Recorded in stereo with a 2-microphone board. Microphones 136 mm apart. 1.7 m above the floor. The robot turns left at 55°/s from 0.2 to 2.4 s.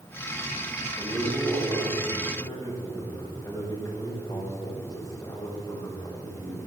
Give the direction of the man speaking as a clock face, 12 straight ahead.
4 o'clock.